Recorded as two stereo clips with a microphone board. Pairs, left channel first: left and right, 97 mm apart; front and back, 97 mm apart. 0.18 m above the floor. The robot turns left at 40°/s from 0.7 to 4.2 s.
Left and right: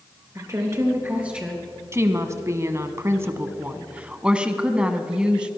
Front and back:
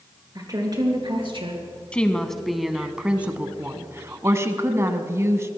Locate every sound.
0.3 s a woman speaking: 140° right, 3 m; by 1.6 s straight behind, 3 m
1.9 s a woman speaking: 65° right, 1.1 m; by 5.5 s 160° right, 1.1 m